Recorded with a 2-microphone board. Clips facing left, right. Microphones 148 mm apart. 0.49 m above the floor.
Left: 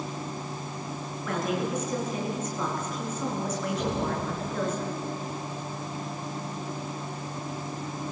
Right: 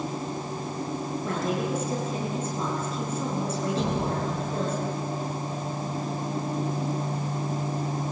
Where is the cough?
I don't hear a cough.